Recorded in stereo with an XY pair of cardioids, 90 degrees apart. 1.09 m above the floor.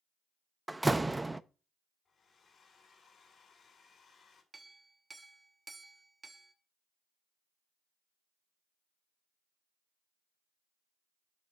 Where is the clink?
25° right, 1.1 m.